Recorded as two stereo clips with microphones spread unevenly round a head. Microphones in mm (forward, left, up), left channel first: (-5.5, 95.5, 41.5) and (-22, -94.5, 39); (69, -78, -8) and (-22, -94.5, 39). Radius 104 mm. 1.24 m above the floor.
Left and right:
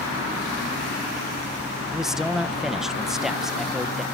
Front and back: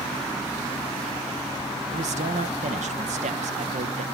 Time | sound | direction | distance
1.9 | a man speaking | straight behind | 1.2 m